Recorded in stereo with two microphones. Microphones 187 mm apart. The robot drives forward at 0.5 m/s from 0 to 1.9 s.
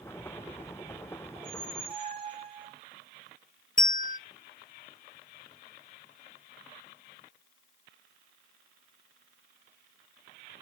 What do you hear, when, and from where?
1.4 s a squeak: 30° right (ahead or behind), 3 m
3.8 s a bell: 50° left (ahead or behind), 0.6 m